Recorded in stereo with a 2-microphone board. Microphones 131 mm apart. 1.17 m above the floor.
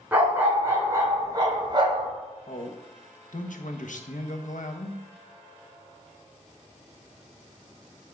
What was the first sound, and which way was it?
A dog barking, 10° right (ahead or behind).